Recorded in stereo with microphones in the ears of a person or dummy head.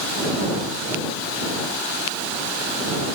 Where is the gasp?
I don't hear a gasp.